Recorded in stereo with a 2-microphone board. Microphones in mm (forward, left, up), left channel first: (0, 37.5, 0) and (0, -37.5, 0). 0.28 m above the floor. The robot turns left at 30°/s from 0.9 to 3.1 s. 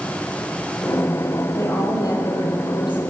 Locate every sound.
1.6 s a woman speaking: 135° left, 7.5 m; by 3.1 s 90° left, 7.5 m